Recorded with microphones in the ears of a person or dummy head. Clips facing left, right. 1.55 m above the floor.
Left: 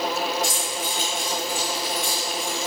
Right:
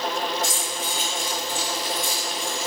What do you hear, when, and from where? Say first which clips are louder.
0.4 s keys jangling: left 1 dB; 20° right (ahead or behind), 1.5 m